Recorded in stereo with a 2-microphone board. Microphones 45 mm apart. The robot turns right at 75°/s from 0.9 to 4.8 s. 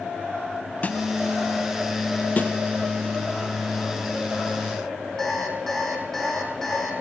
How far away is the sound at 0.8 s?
About 0.7 m.